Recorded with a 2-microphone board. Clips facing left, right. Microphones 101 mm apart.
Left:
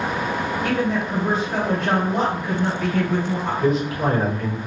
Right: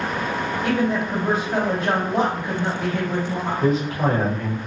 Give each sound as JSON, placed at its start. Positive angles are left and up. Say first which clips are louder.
{"t": 0.6, "sound": "a woman speaking", "louder": "right 2 dB", "side_deg": -20, "distance_m": 1.7}
{"t": 3.6, "sound": "a man speaking", "louder": "even", "side_deg": -35, "distance_m": 1.2}